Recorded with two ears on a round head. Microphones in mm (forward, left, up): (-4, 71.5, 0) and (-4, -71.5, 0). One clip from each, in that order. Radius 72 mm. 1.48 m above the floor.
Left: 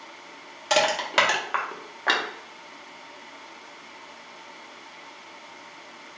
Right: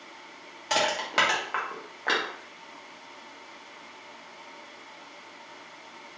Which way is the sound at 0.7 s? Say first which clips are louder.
Left 4 dB; 20° left (ahead or behind).